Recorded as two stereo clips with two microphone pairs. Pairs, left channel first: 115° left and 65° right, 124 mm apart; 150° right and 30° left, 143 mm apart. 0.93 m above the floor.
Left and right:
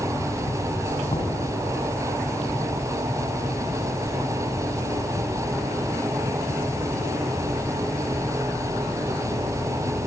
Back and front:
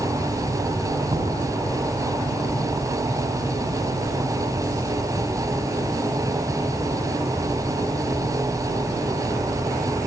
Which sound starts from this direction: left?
Knocking, at 1.1 s.